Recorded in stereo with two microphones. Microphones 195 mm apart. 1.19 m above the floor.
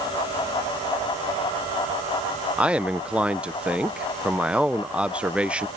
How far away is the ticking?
No ticking in this recording.